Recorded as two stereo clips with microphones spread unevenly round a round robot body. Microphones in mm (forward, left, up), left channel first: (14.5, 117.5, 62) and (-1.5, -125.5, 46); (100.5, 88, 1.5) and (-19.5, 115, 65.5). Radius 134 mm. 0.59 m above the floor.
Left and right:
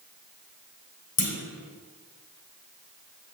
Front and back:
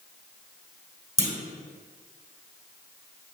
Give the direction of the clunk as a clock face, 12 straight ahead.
9 o'clock.